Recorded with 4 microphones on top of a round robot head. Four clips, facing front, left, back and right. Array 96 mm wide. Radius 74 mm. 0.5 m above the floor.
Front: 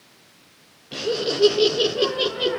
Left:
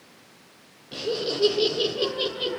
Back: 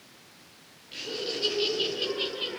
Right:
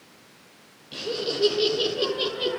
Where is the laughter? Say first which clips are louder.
Left 1 dB, front 11 dB; 20° left, 3.5 m; by 2.6 s 10° right, 3 m.